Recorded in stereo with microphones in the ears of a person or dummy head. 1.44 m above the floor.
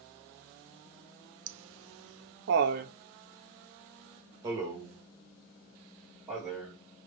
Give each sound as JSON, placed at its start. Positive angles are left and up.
{"t": 1.5, "sound": "laughter", "side_deg": -70, "distance_m": 0.9}